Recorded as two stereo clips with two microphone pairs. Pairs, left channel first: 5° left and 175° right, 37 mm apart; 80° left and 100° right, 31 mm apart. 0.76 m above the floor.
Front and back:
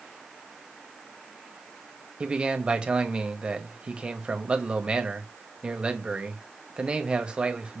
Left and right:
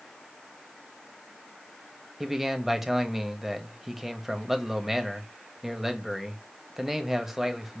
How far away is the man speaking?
About 0.8 m.